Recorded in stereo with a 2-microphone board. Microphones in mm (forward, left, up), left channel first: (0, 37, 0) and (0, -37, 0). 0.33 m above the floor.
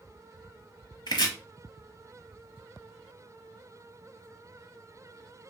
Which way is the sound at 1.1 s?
70° left (ahead or behind).